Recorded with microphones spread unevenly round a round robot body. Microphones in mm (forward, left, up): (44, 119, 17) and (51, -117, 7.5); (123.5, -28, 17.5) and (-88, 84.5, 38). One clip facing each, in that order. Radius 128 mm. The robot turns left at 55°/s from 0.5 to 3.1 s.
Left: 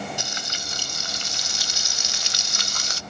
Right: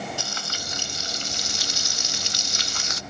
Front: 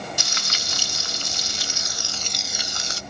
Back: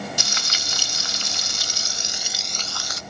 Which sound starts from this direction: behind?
Frying, at 0.2 s.